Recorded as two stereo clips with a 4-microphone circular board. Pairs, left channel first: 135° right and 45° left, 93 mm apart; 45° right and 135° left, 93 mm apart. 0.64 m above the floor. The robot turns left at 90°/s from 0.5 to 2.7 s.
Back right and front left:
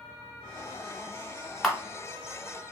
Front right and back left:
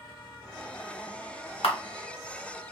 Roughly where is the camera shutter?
Ahead right.